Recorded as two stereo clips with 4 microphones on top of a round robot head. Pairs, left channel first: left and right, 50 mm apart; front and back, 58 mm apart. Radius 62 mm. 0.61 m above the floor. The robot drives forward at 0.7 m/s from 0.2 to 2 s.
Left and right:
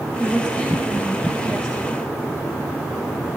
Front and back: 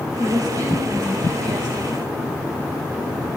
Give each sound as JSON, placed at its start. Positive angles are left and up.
{"t": 0.2, "sound": "a woman speaking", "azimuth_deg": 160, "distance_m": 3.5}